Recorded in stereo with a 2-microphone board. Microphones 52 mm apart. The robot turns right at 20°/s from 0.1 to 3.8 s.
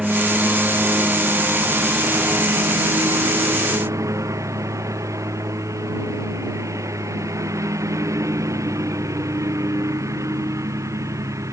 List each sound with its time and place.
0.0 s a lawn mower: 170° right; by 11.5 s 95° right